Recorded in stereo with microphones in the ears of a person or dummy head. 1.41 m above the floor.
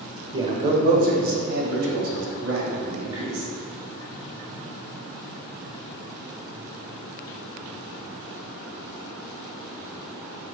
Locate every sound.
0.3 s a man speaking: 30° right (ahead or behind), 1.3 m; by 3.5 s 85° right, 3 m